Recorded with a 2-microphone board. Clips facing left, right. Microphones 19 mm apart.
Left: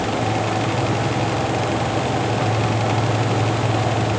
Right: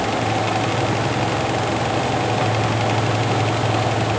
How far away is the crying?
No crying in this recording.